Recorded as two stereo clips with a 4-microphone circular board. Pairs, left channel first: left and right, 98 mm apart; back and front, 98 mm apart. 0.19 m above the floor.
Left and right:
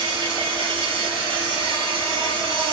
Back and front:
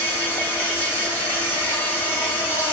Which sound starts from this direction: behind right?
An insect, at 0.0 s.